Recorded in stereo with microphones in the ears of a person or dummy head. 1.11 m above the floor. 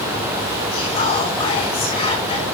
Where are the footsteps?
No footsteps in this recording.